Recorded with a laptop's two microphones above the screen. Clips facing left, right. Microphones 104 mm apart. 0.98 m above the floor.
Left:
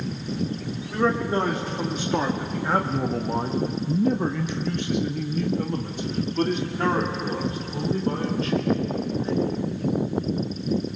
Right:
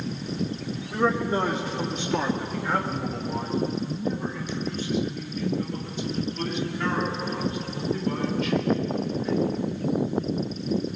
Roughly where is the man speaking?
Centre.